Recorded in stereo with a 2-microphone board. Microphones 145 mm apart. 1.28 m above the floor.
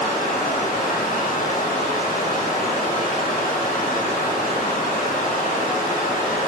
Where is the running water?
70° left (ahead or behind), 1.6 m.